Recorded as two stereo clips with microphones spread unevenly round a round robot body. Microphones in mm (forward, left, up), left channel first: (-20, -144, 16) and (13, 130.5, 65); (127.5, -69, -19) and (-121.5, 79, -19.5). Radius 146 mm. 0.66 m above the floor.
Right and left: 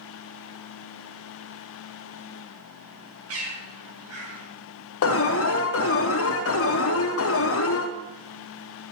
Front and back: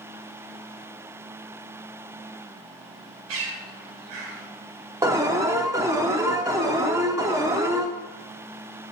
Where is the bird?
125° left, 1.9 m.